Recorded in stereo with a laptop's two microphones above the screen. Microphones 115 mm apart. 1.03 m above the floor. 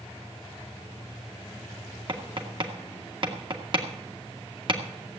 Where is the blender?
No blender in this recording.